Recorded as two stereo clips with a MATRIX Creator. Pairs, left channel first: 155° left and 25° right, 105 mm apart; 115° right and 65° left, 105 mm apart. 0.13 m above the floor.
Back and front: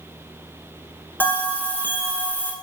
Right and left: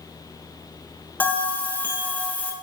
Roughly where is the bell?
Behind.